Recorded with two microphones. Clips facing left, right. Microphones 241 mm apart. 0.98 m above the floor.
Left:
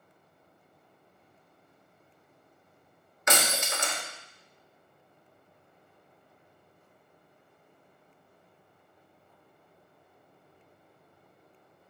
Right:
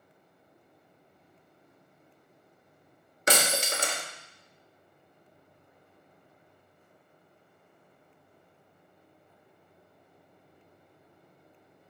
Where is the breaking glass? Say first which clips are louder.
Right 2 dB; 35° right (ahead or behind), 1.3 m.